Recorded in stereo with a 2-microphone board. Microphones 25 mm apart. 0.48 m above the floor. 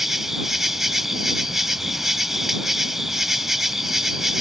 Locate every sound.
0.0 s an insect: 15° right (ahead or behind)